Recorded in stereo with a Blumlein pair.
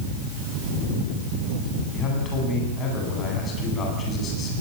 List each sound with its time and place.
1.9 s a man speaking: 25° left, 10 m